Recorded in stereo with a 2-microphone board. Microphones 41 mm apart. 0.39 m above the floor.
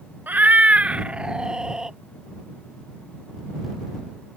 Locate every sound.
0.3 s a cat meowing: 55° right (ahead or behind); by 2.0 s 15° right (ahead or behind)